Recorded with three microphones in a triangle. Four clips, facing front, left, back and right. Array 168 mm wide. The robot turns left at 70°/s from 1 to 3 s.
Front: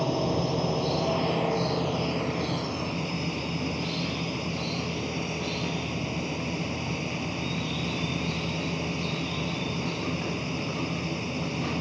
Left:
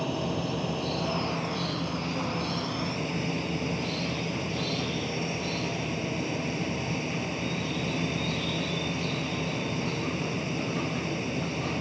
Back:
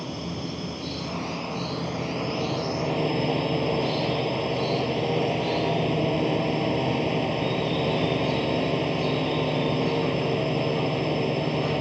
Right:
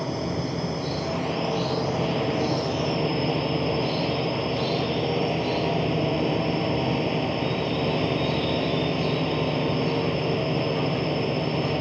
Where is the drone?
5° right; by 11.8 s 145° right.